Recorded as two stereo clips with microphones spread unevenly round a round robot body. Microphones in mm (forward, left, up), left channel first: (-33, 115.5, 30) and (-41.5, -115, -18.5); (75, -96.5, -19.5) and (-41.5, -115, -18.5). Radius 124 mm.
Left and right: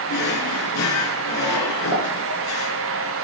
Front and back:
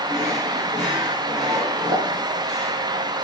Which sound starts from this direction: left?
A drawer, at 0.1 s.